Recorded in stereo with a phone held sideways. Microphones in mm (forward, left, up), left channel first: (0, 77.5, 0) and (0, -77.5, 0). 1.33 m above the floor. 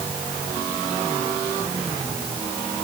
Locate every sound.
Only background noise.